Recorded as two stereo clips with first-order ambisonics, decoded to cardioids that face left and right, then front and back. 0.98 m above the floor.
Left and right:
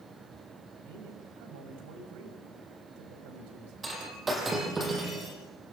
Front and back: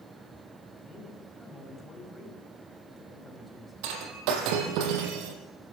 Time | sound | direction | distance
0.9 | a man speaking | 90° right | 6 m
3.8 | breaking glass | 165° right | 4 m